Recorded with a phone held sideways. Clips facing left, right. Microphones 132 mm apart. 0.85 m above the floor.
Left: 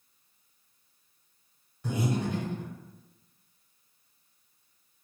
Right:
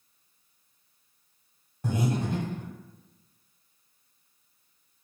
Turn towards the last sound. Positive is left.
turn(degrees=-45)  # may be behind; listen again after turning